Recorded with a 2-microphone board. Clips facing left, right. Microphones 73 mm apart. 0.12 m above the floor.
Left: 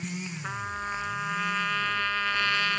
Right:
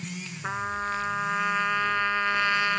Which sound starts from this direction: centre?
A trumpet, at 0.4 s.